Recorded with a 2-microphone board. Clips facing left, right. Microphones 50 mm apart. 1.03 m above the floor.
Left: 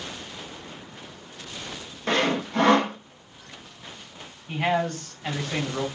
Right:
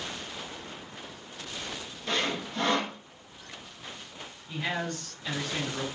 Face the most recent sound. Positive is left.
turn(degrees=75)  # may be behind; listen again after turning